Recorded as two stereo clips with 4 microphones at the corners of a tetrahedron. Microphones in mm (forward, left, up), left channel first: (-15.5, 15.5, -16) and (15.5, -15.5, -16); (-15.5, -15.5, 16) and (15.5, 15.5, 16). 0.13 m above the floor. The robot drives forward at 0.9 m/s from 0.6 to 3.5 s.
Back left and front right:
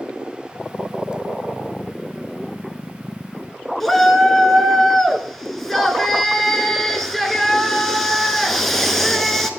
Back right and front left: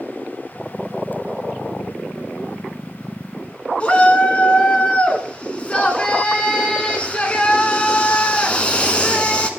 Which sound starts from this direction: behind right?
A shout, at 3.8 s.